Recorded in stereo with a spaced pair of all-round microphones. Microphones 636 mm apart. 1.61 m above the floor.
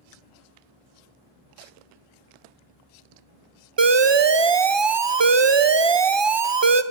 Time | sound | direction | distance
0.0 | a fan | 65° right (ahead or behind) | 9 m
3.8 | an alarm | 45° right (ahead or behind) | 0.6 m